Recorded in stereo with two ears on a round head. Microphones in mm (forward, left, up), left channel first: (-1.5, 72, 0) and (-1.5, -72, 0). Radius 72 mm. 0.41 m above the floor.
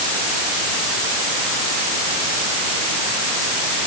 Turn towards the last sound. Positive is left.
No sound to turn to.